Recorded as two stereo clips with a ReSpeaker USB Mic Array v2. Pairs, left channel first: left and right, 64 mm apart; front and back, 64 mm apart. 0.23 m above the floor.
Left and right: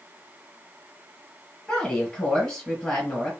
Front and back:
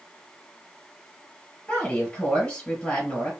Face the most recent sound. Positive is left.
turn(degrees=30)